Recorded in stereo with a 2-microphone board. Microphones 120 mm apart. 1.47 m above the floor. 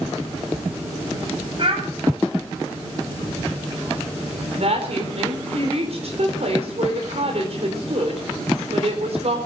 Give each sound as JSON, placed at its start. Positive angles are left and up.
{"t": 1.6, "sound": "a child speaking", "side_deg": -45, "distance_m": 8.5}
{"t": 4.5, "sound": "a woman speaking", "side_deg": -60, "distance_m": 4.0}